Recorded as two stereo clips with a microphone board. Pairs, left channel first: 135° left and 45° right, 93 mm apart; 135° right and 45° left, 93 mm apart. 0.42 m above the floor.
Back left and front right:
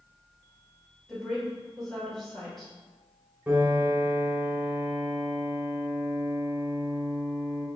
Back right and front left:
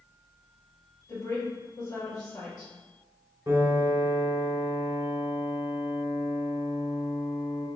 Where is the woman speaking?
140° right, 1.6 m.